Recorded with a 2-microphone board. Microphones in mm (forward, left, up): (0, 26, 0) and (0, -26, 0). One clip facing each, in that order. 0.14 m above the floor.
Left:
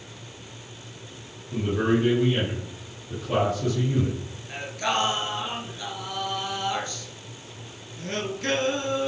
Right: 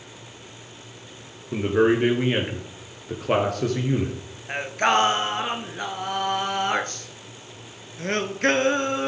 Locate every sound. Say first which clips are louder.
1.5 s a man speaking: right 4 dB; 60° right (ahead or behind), 3 m
4.5 s singing: right 6 dB; 55° right (ahead or behind), 1.0 m